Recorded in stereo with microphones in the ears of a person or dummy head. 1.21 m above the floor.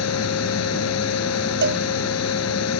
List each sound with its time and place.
0.0 s a fan: 85° left
1.6 s a cowbell: 65° right (ahead or behind)